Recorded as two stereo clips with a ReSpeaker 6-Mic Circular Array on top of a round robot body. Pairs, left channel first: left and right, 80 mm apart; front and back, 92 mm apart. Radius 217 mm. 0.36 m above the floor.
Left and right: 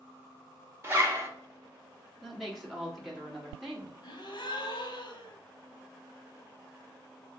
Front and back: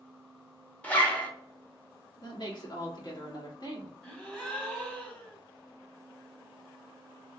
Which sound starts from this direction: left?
A gasp, at 4.0 s.